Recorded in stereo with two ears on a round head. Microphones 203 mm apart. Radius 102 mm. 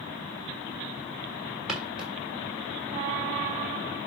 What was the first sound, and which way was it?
Footsteps, centre (ahead or behind).